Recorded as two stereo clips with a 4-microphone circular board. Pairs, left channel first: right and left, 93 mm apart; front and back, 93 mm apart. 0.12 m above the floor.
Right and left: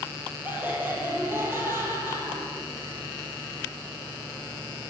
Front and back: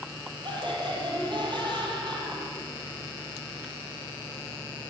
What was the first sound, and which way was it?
Laughter, 160° left.